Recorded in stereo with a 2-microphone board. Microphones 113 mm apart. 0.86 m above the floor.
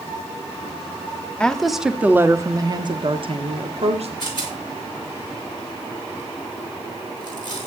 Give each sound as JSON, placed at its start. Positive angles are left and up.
{"t": 1.4, "sound": "a woman speaking", "side_deg": 10, "distance_m": 1.4}
{"t": 4.2, "sound": "a rattle", "side_deg": 45, "distance_m": 4.5}